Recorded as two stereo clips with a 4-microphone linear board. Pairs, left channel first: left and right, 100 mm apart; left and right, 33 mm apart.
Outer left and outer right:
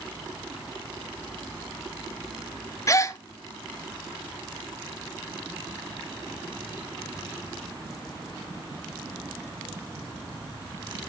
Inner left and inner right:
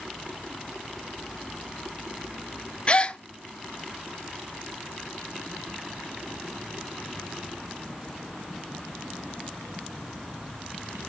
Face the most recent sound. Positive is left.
turn(degrees=30)  # may be behind; listen again after turning